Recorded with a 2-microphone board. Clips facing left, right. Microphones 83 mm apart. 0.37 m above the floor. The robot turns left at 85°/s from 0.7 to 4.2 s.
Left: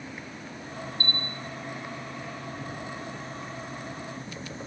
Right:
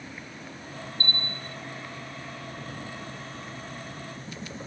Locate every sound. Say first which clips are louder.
1.0 s a bell: right 2 dB; 40° right; by 1.6 s 85° right